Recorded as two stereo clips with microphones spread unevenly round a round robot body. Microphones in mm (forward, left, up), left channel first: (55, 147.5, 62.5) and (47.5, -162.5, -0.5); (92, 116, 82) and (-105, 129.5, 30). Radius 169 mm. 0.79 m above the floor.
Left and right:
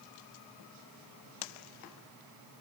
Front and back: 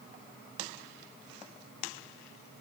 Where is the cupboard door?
No cupboard door in this recording.